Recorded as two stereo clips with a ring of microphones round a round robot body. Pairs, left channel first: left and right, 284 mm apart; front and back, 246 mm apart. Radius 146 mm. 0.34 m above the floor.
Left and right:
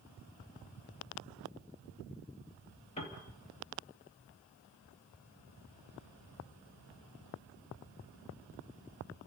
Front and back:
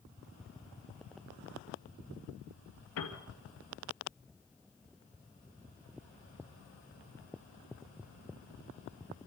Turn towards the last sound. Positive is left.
turn(degrees=20)